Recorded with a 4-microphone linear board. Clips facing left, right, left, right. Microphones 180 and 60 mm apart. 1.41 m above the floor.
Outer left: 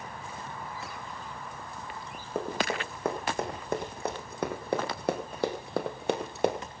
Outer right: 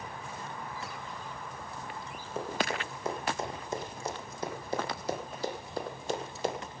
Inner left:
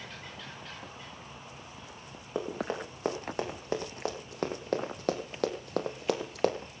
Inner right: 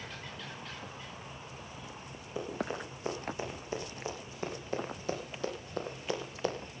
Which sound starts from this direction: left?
Running footsteps, at 2.4 s.